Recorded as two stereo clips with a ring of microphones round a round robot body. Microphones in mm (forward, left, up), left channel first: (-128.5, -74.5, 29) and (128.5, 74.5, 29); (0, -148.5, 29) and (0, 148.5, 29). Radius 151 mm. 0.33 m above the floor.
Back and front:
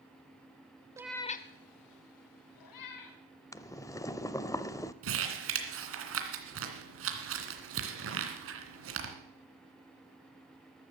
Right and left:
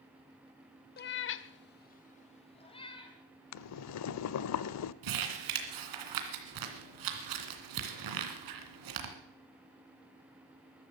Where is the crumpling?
75° left, 2.5 m.